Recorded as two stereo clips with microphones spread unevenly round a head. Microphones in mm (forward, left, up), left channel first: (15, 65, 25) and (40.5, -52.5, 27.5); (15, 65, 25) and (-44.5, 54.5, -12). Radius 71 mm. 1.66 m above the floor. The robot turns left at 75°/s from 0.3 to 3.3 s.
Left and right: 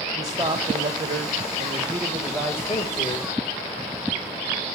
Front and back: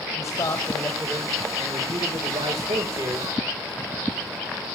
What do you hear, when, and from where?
0.2 s a man speaking: 15° right, 1.7 m; by 3.3 s 120° left, 1.7 m